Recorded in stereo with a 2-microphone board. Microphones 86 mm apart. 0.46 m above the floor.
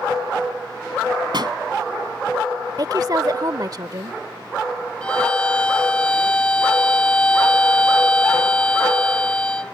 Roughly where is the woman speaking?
Right.